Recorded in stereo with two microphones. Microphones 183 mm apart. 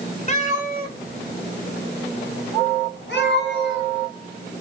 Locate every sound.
0.3 s a cat meowing: 40° left (ahead or behind), 1.6 m; by 3.9 s 70° left (ahead or behind), 3 m